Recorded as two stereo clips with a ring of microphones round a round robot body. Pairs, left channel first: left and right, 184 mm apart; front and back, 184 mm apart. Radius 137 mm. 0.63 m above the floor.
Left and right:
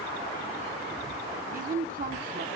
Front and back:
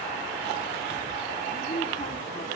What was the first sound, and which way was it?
A woman speaking, 65° right.